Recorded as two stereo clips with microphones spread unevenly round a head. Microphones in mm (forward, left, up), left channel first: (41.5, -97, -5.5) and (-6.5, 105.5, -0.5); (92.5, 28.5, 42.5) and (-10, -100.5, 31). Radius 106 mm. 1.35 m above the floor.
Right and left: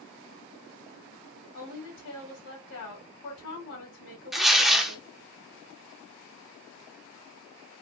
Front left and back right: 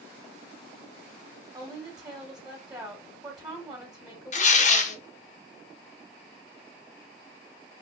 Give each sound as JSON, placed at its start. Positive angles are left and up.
{"t": 1.5, "sound": "a woman speaking", "azimuth_deg": -65, "distance_m": 2.0}
{"t": 4.3, "sound": "tearing paper", "azimuth_deg": 15, "distance_m": 0.7}